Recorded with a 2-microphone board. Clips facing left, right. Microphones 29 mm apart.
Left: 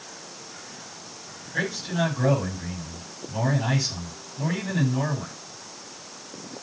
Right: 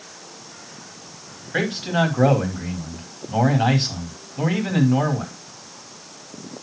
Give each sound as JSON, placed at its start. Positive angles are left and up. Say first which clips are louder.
{"t": 1.5, "sound": "a man speaking", "louder": "right 5 dB", "side_deg": -55, "distance_m": 5.0}